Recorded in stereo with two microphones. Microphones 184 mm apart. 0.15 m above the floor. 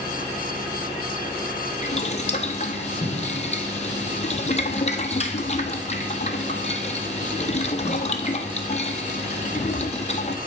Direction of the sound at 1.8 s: 40° left (ahead or behind).